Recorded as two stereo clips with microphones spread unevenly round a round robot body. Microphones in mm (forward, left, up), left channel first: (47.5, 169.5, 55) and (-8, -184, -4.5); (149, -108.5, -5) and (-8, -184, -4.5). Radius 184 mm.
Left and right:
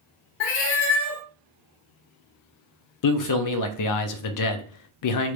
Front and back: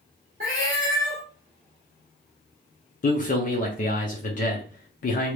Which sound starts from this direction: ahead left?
A man speaking, at 3.0 s.